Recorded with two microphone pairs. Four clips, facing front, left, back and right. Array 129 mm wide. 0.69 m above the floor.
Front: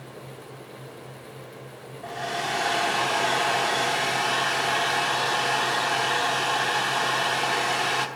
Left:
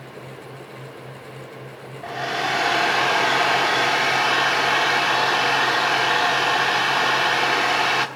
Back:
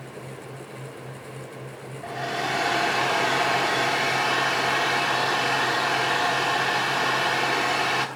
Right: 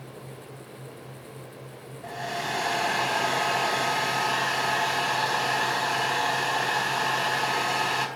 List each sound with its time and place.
2.0 s a hair dryer: 85° left, 1.1 m